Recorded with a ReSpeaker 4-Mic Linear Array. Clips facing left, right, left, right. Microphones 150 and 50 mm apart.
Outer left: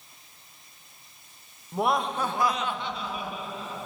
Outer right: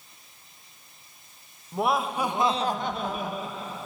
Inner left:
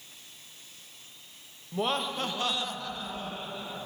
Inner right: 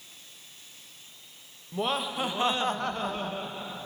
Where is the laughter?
Centre (ahead or behind), 1.1 m; by 3.8 s 40° right (ahead or behind), 1.1 m.